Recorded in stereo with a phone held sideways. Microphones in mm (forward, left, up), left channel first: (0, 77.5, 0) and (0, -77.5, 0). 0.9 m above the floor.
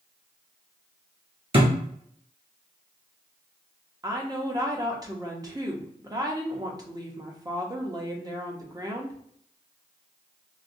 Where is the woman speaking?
25° right (ahead or behind), 0.8 m.